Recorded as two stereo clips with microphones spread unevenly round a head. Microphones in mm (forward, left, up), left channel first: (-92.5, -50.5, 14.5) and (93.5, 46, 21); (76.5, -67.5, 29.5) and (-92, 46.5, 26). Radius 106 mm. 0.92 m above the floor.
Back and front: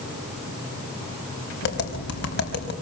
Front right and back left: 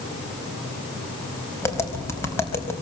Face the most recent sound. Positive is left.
turn(degrees=-110)